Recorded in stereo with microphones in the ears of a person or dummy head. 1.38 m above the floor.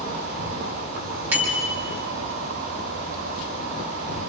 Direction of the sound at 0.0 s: 65° right (ahead or behind).